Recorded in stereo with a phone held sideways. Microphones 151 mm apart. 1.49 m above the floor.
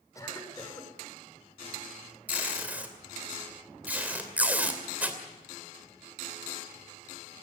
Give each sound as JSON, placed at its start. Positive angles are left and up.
{"t": 0.1, "sound": "a cough", "side_deg": 20, "distance_m": 5.0}
{"t": 2.3, "sound": "tape being pulled", "side_deg": -10, "distance_m": 2.5}